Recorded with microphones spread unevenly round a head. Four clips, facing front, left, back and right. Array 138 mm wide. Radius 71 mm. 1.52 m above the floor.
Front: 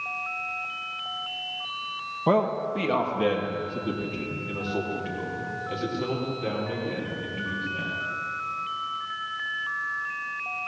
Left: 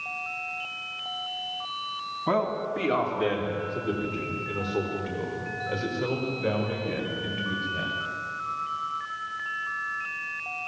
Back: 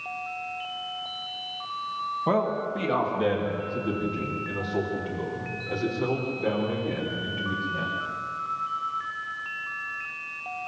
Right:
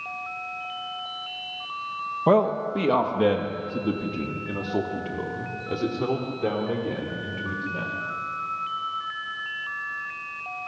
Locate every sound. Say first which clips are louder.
2.3 s a man speaking: right 6 dB, front 3 dB; 70° right, 2 m; by 7.9 s 95° right, 6.5 m